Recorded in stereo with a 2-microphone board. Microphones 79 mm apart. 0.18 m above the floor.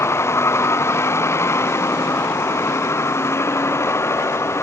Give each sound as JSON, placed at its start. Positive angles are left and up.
{"t": 0.0, "sound": "a vehicle", "side_deg": 35}